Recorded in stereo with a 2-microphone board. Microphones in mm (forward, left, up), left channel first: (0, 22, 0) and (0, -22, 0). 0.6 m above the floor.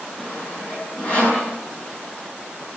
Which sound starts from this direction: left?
Sawing, at 0.2 s.